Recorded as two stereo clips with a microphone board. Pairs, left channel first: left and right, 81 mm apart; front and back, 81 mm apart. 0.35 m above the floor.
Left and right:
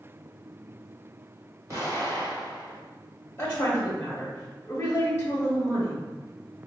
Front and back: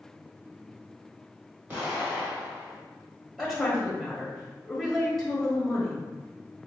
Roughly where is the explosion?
Behind right.